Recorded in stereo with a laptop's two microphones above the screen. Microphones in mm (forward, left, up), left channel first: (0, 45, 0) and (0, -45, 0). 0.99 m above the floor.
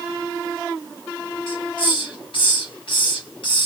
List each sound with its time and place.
1.5 s a hiss: 70° left (ahead or behind), 2 m